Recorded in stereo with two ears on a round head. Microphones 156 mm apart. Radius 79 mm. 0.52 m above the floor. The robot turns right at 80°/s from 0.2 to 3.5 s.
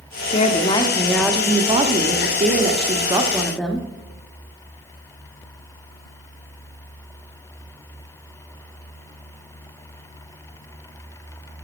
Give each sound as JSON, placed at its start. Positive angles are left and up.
{"t": 0.3, "sound": "a woman speaking", "azimuth_deg": 105, "distance_m": 1.0}